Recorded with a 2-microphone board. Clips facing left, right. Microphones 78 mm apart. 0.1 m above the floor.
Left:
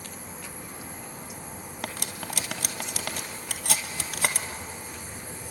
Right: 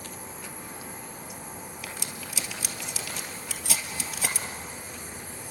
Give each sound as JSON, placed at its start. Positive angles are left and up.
{"t": 1.8, "sound": "cutlery clinking", "side_deg": 60, "distance_m": 1.5}